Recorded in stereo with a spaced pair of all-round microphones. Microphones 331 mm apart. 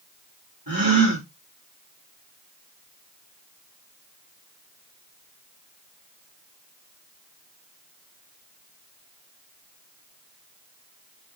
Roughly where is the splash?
I don't hear a splash.